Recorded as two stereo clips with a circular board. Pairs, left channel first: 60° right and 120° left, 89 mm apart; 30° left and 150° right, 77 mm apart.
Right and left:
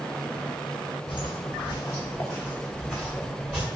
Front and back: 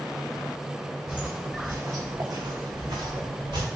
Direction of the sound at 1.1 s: 70° right.